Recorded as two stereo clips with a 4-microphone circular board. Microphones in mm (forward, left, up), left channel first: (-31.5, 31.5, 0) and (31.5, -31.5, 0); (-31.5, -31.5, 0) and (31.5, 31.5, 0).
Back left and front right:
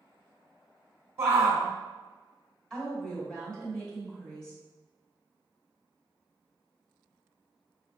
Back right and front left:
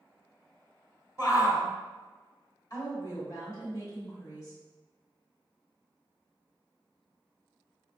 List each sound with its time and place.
1.2 s a shout: 95° right, 1.3 m
2.7 s a woman speaking: 145° right, 1.9 m